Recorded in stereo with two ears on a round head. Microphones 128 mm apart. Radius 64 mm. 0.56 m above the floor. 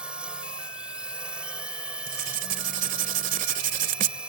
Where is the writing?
60° right (ahead or behind).